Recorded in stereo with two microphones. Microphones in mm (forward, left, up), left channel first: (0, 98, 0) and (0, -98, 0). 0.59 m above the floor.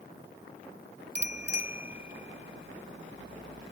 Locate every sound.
1.1 s a bicycle bell: 60° right (ahead or behind); by 3.7 s 70° right (ahead or behind)